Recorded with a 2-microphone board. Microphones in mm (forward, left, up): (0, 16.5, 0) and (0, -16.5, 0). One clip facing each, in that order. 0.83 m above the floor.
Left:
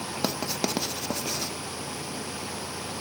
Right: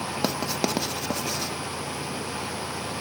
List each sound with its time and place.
0.2 s writing: 10° right (ahead or behind), 0.7 m